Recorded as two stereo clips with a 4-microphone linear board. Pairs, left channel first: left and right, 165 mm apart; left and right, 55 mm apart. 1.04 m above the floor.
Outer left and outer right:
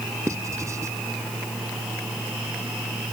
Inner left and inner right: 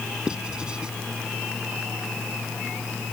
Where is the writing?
15° right (ahead or behind).